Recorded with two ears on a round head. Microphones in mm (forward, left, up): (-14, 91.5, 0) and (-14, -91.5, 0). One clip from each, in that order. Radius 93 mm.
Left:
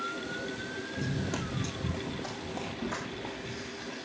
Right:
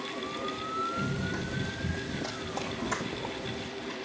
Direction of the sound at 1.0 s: 75° left (ahead or behind).